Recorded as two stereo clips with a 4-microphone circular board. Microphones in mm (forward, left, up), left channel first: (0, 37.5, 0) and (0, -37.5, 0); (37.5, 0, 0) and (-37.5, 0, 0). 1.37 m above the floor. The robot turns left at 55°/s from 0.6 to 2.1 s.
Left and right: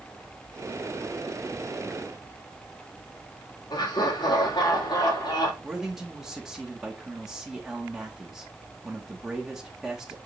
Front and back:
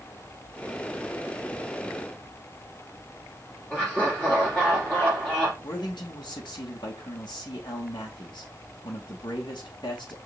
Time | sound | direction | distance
3.7 | laughter | 75° left | 3.5 m
5.6 | a man speaking | 5° right | 2 m